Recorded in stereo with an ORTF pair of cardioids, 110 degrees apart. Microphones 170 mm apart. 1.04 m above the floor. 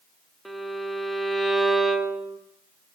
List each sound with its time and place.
0.5 s a violin: straight ahead, 0.9 m